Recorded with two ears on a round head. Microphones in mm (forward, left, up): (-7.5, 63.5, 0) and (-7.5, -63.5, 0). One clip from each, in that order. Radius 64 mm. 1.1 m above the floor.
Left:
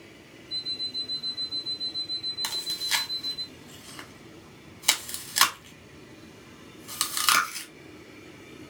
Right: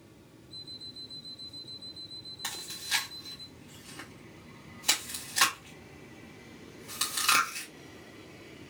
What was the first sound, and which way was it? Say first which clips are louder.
An alarm clock: left 13 dB; 20° left (ahead or behind).